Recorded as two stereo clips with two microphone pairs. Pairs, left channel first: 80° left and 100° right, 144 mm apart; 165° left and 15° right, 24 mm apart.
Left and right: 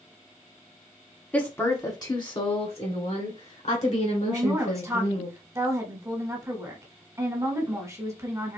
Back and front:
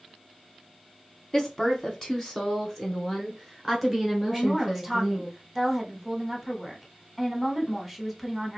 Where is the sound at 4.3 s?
105° right, 1.0 m.